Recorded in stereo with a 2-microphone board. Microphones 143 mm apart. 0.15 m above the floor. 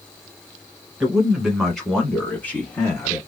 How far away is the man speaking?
About 1.4 m.